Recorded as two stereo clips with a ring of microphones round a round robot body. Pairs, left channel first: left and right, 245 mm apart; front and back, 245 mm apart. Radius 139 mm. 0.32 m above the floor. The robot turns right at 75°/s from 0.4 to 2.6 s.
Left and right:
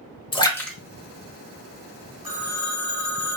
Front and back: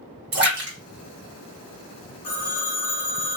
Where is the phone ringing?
15° right, 1.8 m; by 3.4 s 15° left, 1.8 m.